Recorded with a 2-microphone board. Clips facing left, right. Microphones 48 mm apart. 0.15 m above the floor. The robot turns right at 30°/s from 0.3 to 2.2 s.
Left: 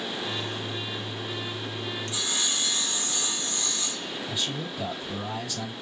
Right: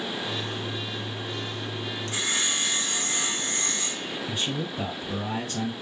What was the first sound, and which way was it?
Sawing, 50° right (ahead or behind).